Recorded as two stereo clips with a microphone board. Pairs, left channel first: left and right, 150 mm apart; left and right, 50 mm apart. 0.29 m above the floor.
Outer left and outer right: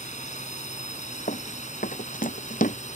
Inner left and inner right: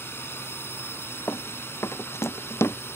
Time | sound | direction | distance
0.0 | a drone | 50° left (ahead or behind) | ?
1.3 | running footsteps | 65° left (ahead or behind) | ?